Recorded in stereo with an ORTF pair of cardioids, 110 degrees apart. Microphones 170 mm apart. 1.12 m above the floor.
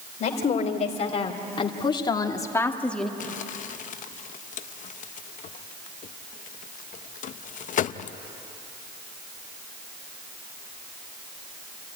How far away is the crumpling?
About 0.7 m.